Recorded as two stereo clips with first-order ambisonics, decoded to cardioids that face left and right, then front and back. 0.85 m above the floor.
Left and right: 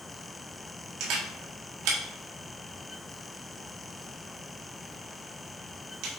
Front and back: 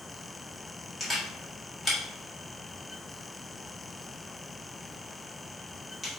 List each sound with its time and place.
1.0 s a camera shutter: 85° right, 1.6 m